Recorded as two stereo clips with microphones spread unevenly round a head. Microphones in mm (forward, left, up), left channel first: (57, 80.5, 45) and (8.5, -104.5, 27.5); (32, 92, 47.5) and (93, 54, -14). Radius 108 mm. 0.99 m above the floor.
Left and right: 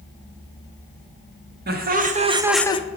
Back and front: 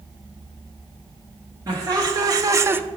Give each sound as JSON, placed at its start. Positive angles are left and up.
{"t": 1.7, "sound": "laughter", "azimuth_deg": -70, "distance_m": 1.4}